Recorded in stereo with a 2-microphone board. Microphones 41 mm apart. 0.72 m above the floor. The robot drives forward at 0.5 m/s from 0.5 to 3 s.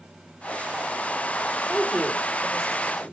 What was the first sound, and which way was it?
A woman speaking, 10° right (ahead or behind).